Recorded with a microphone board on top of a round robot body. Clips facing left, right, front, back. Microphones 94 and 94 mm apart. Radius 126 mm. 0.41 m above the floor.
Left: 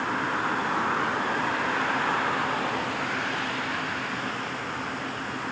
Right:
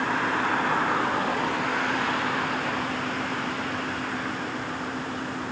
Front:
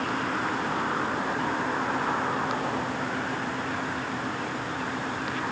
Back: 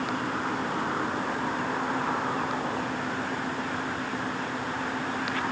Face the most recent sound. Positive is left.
No sound to turn to.